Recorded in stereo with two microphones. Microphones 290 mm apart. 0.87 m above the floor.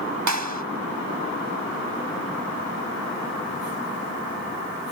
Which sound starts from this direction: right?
A clap, at 0.3 s.